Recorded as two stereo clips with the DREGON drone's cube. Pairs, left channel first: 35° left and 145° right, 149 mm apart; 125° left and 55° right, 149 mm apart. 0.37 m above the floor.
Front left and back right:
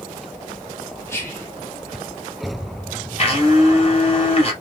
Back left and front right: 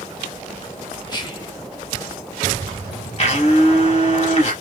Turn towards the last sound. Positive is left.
turn(degrees=80)